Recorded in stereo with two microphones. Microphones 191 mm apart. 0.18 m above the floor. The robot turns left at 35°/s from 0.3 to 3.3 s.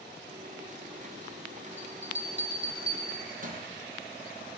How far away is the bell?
About 5 m.